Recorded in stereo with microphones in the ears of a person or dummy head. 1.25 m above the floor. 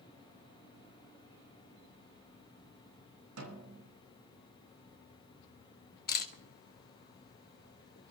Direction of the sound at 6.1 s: 45° left (ahead or behind).